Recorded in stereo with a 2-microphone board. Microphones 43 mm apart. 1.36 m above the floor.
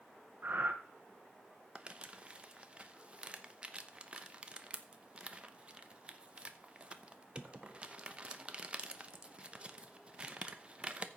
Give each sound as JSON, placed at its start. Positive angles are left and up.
{"t": 0.4, "sound": "breathing", "side_deg": -45, "distance_m": 1.2}
{"t": 1.8, "sound": "crumpling", "side_deg": -25, "distance_m": 0.9}